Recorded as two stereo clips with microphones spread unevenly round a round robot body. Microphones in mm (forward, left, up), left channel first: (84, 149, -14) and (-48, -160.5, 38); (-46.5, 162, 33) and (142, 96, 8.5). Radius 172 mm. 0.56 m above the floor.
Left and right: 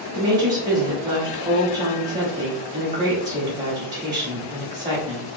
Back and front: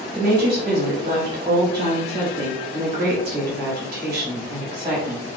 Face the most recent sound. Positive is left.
turn(degrees=-50)